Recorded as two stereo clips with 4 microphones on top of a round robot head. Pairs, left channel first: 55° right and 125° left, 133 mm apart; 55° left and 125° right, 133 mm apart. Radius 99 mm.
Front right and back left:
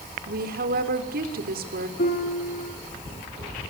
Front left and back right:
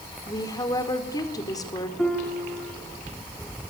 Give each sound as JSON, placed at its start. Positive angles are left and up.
{"t": 0.3, "sound": "a woman speaking", "azimuth_deg": 120, "distance_m": 4.5}
{"t": 2.0, "sound": "a piano", "azimuth_deg": -30, "distance_m": 4.0}